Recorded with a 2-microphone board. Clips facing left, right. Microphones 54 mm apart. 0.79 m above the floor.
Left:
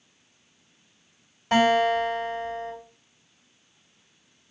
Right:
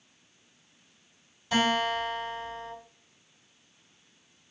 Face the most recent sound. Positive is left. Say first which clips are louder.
# left 6 dB
turn(degrees=55)  # may be behind; listen again after turning